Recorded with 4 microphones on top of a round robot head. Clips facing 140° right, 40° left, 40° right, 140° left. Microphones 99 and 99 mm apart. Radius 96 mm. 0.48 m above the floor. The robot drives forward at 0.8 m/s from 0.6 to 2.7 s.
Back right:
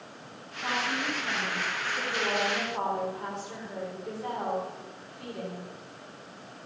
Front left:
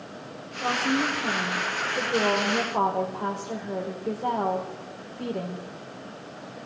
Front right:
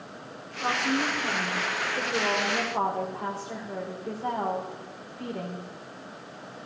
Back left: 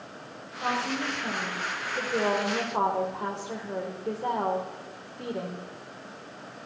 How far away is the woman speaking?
About 3.5 m.